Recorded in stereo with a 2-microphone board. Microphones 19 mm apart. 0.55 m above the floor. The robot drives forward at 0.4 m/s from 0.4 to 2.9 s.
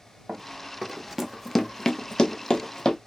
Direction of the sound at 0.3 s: 45° right (ahead or behind).